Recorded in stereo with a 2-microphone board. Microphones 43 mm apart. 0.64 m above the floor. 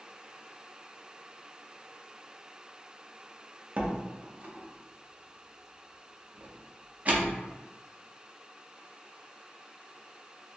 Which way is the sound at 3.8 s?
35° right (ahead or behind).